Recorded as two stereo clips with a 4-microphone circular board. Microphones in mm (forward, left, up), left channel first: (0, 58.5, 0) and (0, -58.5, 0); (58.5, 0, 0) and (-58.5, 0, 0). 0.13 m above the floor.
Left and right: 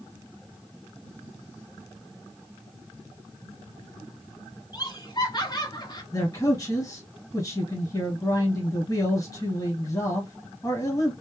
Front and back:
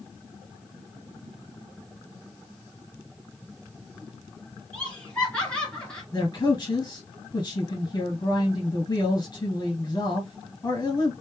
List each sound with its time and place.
4.7 s laughter: 75° left, 2 m
6.1 s a man speaking: 45° left, 2 m